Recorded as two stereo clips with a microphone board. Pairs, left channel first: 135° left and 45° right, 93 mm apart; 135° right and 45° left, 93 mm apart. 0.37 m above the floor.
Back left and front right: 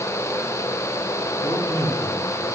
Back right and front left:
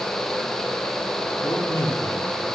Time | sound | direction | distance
1.4 | a man speaking | 175° right | 3 m